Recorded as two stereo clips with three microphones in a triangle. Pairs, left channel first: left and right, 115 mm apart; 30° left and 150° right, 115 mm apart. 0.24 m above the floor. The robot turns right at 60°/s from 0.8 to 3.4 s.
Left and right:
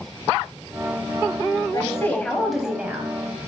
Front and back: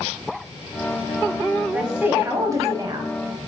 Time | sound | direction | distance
1.7 | a woman speaking | 130° left | 1.1 m